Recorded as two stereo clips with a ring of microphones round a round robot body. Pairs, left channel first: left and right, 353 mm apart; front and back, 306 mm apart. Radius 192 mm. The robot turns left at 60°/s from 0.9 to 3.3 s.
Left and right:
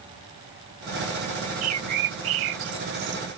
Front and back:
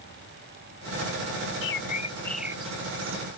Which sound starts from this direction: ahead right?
A bird, at 1.6 s.